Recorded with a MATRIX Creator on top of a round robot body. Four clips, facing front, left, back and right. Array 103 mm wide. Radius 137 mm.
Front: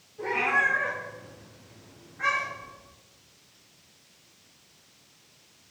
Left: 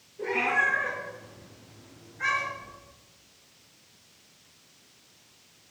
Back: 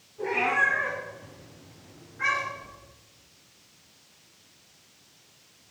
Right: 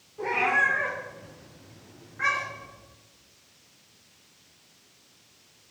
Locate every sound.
0.2 s a cat meowing: 85° right, 4.5 m; by 2.7 s 90° right, 7 m